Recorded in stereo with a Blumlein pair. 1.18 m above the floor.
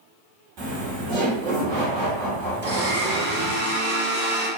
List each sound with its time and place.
0.6 s laughter: 40° right, 1.3 m
2.6 s a blender: 55° right, 1.8 m